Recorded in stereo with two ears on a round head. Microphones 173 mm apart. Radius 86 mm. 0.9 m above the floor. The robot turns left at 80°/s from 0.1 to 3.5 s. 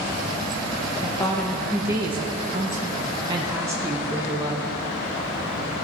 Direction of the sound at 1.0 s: 40° left.